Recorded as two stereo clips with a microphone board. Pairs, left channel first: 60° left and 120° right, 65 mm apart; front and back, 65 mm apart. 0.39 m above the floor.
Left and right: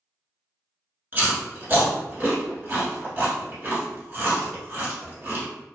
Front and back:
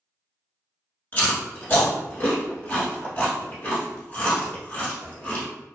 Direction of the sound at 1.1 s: 60° right.